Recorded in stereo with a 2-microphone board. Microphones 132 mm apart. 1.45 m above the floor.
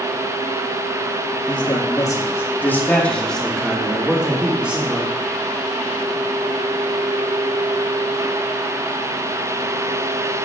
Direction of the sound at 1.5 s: 35° left (ahead or behind).